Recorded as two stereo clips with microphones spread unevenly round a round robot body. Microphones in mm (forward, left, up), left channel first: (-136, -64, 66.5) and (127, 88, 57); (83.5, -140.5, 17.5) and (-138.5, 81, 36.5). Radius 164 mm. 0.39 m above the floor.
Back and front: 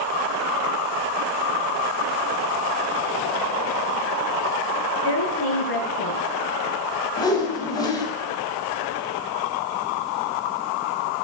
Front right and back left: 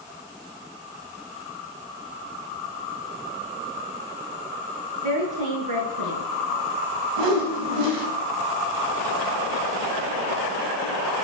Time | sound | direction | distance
5.0 | a woman speaking | 160° left | 7.5 m
7.2 | a whoosh | 135° left | 3.5 m